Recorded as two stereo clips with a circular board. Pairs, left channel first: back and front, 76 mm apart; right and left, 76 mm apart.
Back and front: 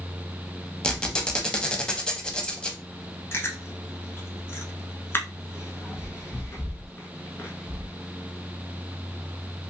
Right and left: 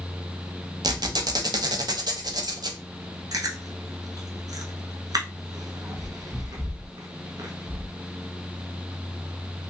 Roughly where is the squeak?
Left.